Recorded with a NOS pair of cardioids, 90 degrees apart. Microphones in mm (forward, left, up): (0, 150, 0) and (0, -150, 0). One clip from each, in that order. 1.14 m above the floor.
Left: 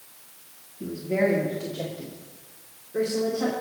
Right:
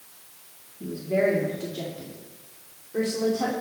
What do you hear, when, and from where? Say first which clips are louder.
0.8 s a woman speaking: right 1 dB; 10° left, 2.5 m; by 3.5 s 25° right, 3 m